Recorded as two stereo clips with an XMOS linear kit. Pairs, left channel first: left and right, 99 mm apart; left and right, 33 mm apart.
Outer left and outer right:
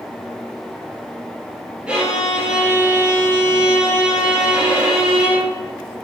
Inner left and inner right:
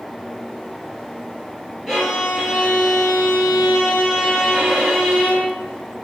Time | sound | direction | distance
1.9 | a violin | 10° right (ahead or behind) | 2.5 m